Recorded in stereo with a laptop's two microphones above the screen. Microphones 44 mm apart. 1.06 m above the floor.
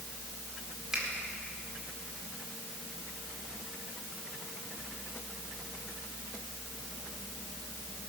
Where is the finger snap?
10° right (ahead or behind), 2 m.